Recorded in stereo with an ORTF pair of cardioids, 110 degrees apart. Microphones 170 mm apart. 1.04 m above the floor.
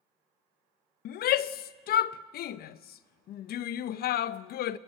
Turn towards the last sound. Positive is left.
turn(degrees=65)